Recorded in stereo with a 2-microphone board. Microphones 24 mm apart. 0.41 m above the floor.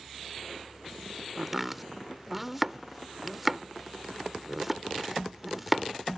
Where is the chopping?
10° right (ahead or behind).